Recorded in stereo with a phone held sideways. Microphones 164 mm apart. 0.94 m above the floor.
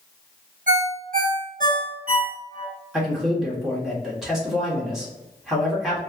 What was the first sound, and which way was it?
A ringtone, 55° right (ahead or behind).